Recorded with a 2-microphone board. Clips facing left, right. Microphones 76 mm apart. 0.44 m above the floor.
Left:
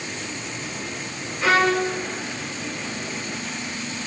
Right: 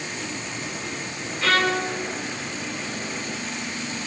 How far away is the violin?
About 2.5 m.